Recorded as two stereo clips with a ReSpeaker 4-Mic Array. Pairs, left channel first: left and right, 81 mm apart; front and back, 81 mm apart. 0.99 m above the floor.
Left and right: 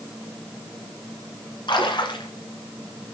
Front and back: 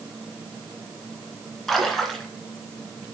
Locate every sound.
1.7 s a splash: 85° left, 2.5 m